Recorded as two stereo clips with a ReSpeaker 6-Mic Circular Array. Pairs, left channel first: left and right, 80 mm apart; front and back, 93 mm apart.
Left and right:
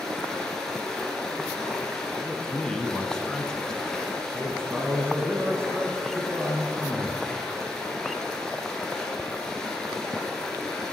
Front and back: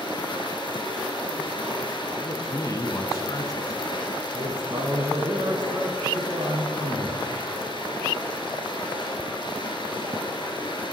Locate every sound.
0.0 s running water: 5° left, 2.5 m
2.2 s a man speaking: 15° left, 1.2 m
4.3 s a man speaking: 140° right, 1.5 m